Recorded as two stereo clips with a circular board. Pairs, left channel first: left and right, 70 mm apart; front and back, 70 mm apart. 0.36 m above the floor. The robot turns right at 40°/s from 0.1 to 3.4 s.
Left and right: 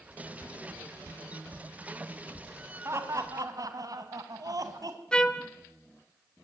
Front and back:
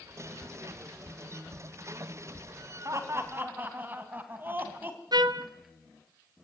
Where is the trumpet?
165° left, 0.9 m.